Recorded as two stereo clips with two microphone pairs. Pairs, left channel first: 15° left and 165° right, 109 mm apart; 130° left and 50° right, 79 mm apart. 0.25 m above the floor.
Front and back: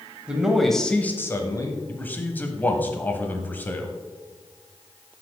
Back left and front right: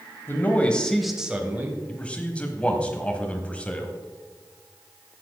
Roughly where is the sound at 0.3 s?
Behind left.